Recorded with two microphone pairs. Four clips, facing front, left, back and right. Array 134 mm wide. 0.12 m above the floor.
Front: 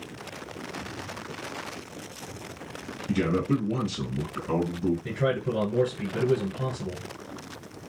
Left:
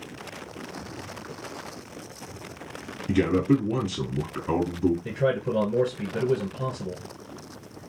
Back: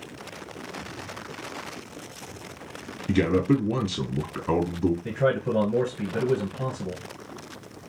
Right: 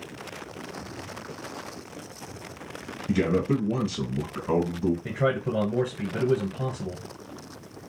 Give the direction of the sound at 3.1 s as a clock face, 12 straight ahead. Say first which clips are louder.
Left 2 dB, back 4 dB; 6 o'clock.